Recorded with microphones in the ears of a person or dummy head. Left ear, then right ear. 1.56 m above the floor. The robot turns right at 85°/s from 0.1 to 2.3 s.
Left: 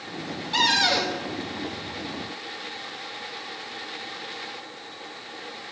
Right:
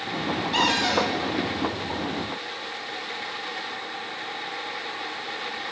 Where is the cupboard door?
5° left, 0.6 m; by 1.2 s 55° left, 0.6 m.